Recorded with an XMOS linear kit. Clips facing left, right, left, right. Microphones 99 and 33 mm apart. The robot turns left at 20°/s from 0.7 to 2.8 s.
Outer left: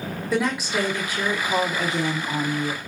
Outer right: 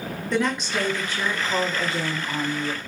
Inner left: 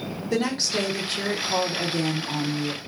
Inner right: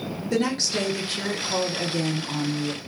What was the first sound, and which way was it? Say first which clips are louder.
A woman speaking: outer left 1 dB, even; 5° left (ahead or behind).